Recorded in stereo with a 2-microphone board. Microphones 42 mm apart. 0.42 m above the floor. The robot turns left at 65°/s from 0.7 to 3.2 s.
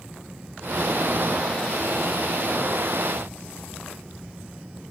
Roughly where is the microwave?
No microwave in this recording.